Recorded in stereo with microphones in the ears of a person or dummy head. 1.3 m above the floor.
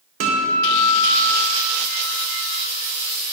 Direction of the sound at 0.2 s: 55° right (ahead or behind).